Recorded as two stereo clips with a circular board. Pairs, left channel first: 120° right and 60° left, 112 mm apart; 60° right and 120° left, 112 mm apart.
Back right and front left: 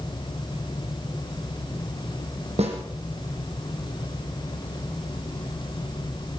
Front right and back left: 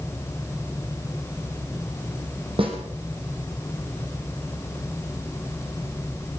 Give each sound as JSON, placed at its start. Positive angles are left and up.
{"t": 2.6, "sound": "a snare drum", "azimuth_deg": 80, "distance_m": 5.5}